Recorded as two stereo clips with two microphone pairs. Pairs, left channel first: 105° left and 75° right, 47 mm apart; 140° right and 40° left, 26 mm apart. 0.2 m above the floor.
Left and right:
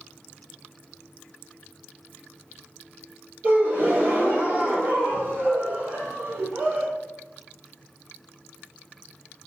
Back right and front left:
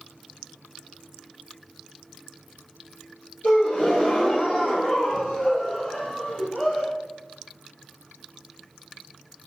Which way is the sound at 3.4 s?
110° right.